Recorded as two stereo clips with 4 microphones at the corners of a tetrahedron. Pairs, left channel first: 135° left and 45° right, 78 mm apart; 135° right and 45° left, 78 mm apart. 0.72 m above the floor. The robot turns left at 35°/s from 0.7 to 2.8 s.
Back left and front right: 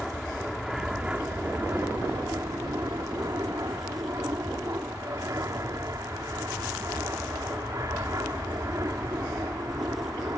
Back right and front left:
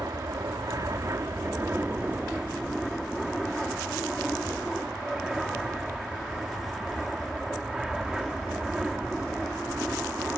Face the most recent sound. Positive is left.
turn(degrees=-35)